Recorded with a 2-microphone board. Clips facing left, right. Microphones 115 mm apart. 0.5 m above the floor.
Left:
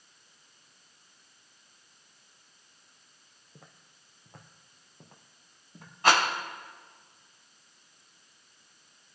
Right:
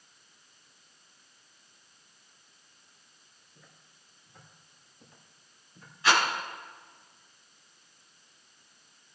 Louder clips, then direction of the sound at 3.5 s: Left 4 dB; 65° left (ahead or behind).